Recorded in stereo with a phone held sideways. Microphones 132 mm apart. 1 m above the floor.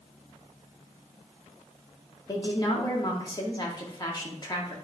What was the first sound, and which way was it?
A woman speaking, 30° left (ahead or behind).